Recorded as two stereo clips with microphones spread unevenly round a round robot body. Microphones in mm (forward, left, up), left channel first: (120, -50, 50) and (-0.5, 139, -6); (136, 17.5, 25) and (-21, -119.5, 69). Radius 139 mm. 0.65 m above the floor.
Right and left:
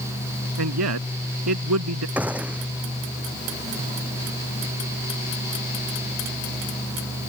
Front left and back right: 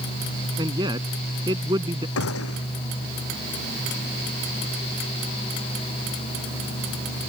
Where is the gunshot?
35° left.